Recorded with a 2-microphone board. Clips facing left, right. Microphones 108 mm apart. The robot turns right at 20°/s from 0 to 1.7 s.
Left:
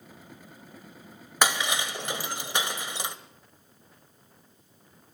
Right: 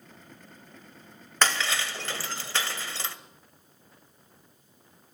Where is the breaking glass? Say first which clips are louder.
Left 1 dB; 10° left (ahead or behind), 1.7 m; by 3.2 s 15° left (ahead or behind), 1.7 m.